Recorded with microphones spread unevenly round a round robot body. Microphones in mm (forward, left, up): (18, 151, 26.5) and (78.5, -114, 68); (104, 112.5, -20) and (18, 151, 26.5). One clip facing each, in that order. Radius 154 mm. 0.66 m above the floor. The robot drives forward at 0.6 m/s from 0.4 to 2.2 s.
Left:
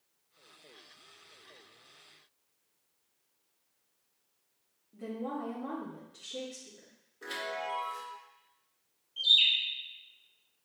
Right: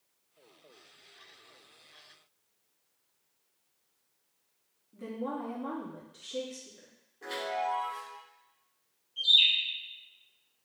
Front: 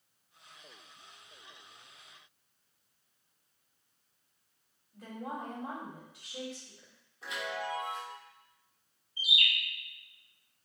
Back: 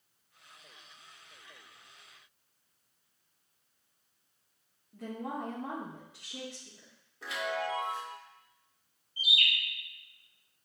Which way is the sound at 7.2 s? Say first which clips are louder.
Right 4 dB, back 3 dB; straight behind.